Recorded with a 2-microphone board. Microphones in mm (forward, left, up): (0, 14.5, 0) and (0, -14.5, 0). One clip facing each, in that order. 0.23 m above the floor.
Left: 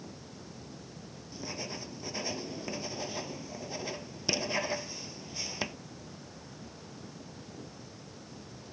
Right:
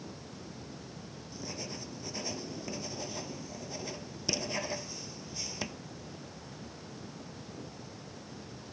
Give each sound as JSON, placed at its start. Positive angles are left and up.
{"t": 1.3, "sound": "writing", "side_deg": 20}